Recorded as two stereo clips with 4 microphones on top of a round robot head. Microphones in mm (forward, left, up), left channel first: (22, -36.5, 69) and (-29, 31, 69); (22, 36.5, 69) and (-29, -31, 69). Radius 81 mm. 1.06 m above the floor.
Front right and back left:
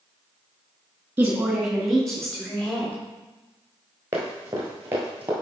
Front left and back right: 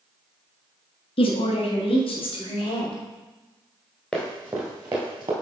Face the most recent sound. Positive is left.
turn(degrees=-165)